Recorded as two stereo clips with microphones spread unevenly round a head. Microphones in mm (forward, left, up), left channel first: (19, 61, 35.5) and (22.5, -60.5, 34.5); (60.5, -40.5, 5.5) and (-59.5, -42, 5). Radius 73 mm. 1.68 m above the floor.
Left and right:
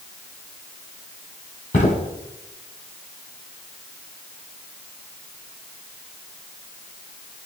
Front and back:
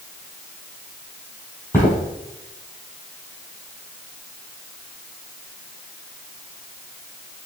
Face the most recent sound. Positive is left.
turn(degrees=75)